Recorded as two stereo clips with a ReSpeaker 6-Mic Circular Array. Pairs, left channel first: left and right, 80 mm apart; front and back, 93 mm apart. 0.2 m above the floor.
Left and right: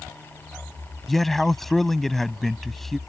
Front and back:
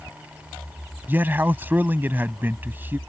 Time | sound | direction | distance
1.1 | a man speaking | 170° left | ?